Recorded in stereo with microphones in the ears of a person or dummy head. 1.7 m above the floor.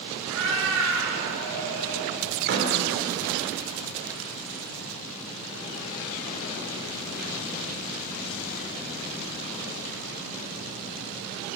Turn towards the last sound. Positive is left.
turn(degrees=-55)  # may be behind; listen again after turning